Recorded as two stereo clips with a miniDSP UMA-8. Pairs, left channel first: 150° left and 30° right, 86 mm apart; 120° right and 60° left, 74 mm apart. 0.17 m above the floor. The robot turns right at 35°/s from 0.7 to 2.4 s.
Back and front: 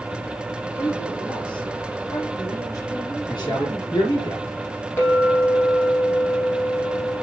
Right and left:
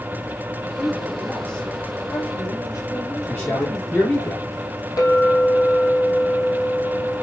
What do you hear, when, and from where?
0.7 s a woman speaking: 135° left, 5 m; by 4.3 s 165° right, 5 m
3.3 s a man speaking: 175° right, 3.5 m
5.0 s a clink: 150° right, 4 m